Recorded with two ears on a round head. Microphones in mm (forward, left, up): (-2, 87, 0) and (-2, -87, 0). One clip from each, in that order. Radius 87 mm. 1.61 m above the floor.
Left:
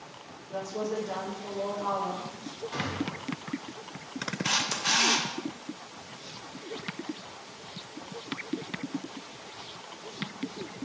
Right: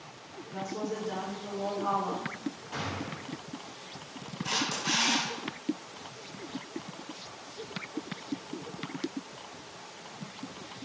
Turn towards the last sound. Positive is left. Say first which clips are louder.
# left 3 dB
turn(degrees=45)  # may be behind; listen again after turning